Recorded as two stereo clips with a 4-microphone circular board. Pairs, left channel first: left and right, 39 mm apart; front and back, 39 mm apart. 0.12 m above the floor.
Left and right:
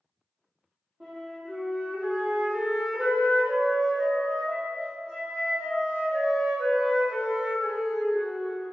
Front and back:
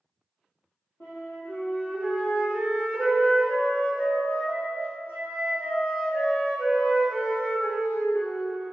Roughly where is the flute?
Ahead right.